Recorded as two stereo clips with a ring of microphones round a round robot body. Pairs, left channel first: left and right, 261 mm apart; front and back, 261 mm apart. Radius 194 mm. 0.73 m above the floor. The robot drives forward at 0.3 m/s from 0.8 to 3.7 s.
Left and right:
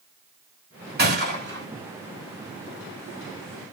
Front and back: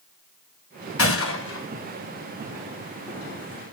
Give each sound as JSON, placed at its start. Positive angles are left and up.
{"t": 1.0, "sound": "a gunshot", "azimuth_deg": -40, "distance_m": 2.0}